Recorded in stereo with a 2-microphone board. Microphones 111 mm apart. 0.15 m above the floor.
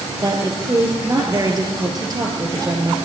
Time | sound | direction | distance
0.2 | a woman speaking | 35° right (ahead or behind) | 2.5 m